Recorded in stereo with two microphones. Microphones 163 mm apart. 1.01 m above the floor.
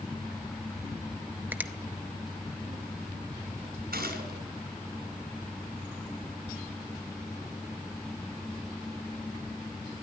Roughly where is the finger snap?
Centre.